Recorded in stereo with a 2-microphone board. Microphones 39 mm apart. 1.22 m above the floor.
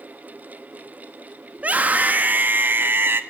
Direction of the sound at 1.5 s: 40° right (ahead or behind).